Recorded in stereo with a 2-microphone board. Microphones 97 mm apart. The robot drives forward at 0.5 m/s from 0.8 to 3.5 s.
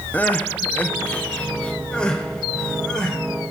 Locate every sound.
0.1 s crying: 20° left (ahead or behind), 0.8 m; by 3.2 s 10° left (ahead or behind), 1.8 m